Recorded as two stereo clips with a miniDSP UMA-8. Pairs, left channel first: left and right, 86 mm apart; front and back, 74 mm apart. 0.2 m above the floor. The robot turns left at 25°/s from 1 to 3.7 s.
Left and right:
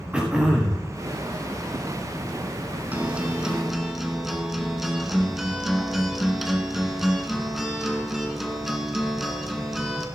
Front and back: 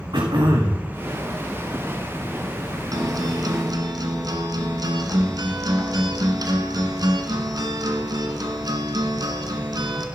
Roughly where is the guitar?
Behind.